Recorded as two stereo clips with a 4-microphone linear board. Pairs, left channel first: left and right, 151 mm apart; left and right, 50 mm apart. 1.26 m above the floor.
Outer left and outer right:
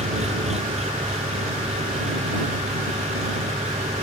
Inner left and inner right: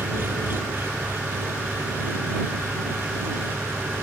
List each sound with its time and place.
0.0 s an engine running: 45° right (ahead or behind)